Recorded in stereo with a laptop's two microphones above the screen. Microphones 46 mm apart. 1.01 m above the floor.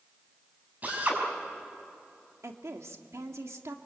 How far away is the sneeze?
I don't hear a sneeze.